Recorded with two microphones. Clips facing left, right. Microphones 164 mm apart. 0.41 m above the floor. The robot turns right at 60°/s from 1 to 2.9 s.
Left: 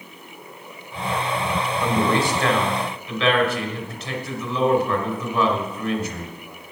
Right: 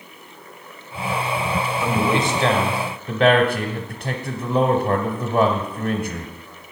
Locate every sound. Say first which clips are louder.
1.8 s a man speaking: left 1 dB; straight behind, 1.3 m; by 6.3 s 115° right, 1.3 m